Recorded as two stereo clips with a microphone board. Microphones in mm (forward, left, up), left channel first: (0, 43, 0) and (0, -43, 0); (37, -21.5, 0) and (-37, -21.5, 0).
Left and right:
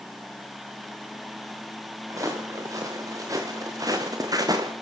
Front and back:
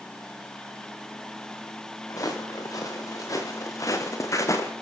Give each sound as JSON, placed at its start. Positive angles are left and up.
{"t": 2.1, "sound": "footsteps", "azimuth_deg": -40, "distance_m": 4.5}